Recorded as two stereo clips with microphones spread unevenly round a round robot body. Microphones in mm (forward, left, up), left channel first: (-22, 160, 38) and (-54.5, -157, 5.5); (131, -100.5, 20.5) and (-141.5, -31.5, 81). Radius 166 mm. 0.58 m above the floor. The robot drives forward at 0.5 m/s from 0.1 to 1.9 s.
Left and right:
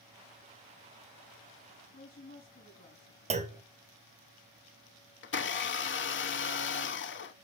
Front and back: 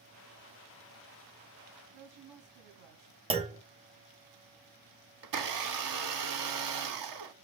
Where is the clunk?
120° right, 1.2 m.